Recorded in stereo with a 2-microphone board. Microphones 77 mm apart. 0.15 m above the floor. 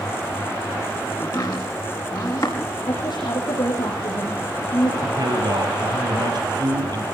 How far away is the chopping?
About 5.5 m.